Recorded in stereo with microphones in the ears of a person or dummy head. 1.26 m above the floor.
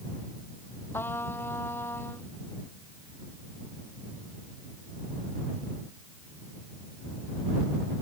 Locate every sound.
0.9 s a trumpet: 10° left (ahead or behind)